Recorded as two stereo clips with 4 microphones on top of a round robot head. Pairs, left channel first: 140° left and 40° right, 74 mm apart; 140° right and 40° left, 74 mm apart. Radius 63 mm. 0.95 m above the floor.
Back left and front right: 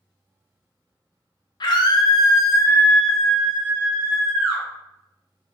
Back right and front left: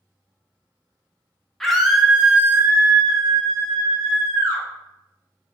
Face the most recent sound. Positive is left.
turn(degrees=15)